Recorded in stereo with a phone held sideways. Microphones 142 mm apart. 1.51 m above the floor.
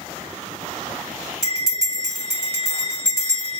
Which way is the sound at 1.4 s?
25° left (ahead or behind).